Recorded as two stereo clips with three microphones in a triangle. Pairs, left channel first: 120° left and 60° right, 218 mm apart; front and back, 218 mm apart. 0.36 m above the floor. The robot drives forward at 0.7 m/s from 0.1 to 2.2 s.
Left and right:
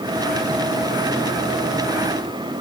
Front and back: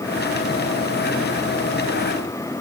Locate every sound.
Only background noise.